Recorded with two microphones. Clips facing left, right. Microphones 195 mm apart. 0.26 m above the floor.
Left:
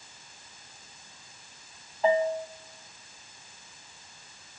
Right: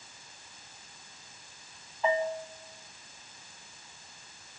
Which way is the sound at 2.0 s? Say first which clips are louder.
Left 5 dB; 35° left (ahead or behind).